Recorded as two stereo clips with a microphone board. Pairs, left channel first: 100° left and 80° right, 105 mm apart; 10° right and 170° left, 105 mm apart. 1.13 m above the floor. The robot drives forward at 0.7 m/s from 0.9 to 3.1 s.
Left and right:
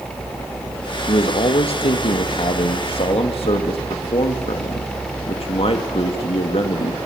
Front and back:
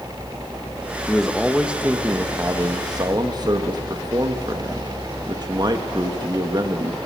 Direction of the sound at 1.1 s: 75° left.